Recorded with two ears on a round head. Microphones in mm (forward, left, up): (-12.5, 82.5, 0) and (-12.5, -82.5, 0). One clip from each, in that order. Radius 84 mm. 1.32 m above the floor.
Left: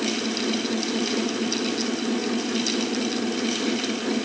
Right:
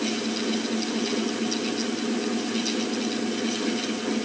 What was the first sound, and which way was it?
Only background noise.